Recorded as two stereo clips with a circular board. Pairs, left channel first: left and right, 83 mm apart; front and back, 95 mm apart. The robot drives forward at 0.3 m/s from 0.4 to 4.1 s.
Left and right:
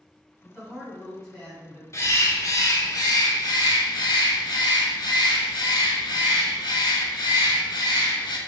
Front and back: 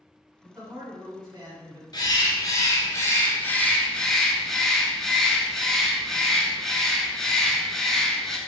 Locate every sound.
0.4 s a man speaking: 170° right, 1.5 m; by 1.8 s 175° right, 1.8 m
1.9 s a bird: 40° left, 1.0 m; by 8.4 s 85° left, 0.7 m